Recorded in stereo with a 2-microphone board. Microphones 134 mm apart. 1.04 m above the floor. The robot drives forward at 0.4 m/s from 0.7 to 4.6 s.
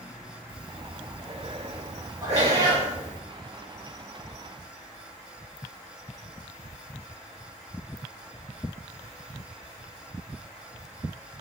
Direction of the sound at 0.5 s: 40° right (ahead or behind).